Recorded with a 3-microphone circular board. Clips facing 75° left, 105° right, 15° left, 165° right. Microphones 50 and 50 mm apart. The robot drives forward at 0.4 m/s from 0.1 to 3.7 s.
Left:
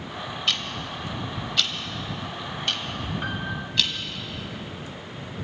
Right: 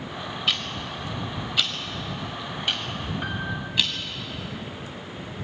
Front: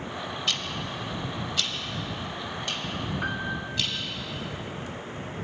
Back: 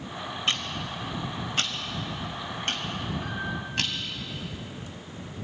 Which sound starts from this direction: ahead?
A piano, at 3.2 s.